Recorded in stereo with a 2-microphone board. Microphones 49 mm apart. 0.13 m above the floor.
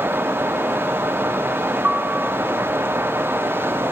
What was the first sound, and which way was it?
A piano, 40° right (ahead or behind).